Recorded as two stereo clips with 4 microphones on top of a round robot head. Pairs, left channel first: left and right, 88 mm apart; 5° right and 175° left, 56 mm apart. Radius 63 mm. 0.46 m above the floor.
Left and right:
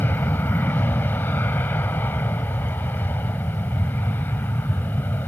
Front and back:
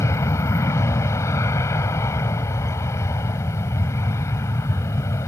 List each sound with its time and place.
0.0 s an aircraft: 20° left